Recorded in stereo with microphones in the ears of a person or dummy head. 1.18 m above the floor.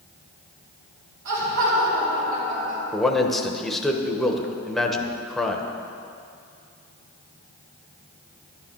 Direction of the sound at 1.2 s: 70° right (ahead or behind).